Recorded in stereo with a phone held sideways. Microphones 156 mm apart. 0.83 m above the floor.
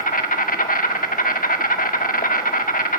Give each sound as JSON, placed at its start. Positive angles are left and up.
{"t": 0.0, "sound": "an insect", "side_deg": 65, "distance_m": 1.3}